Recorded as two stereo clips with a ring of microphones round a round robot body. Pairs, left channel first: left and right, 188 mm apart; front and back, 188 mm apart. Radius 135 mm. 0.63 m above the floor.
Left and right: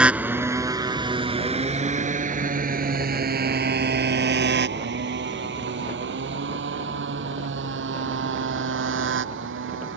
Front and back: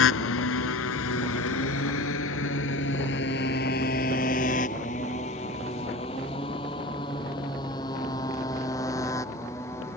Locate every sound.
0.0 s a motorcycle: 5° right; by 10.0 s 80° right